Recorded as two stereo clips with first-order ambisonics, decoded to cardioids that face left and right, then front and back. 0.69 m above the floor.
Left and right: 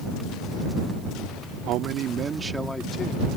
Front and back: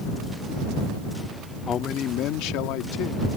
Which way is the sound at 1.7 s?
65° right.